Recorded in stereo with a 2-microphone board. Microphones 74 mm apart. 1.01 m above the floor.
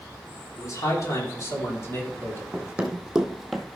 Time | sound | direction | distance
0.6 | a man speaking | 50° left (ahead or behind) | 3.5 m
2.5 | running footsteps | 20° right (ahead or behind) | 2 m